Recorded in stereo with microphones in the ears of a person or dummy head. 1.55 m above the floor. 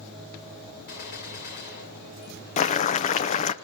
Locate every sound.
0.9 s a gunshot: 50° left (ahead or behind), 1.9 m
2.6 s boiling: 40° left (ahead or behind), 0.7 m